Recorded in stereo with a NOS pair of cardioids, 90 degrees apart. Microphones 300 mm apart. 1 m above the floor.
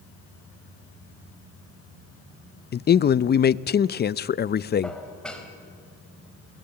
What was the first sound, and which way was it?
A man speaking, 35° left.